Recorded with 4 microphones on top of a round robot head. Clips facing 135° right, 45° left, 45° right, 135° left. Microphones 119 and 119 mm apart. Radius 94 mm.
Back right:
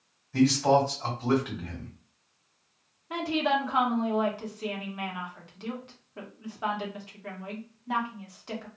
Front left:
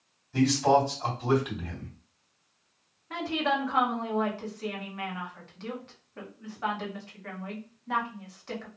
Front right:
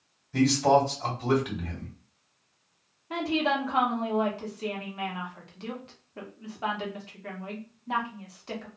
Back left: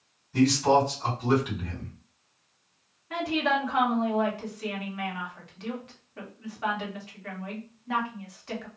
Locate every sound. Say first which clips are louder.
0.3 s a man speaking: back right 1 dB, even; 30° right, 2 m
3.1 s a woman speaking: back right 2 dB, even; 75° right, 1.2 m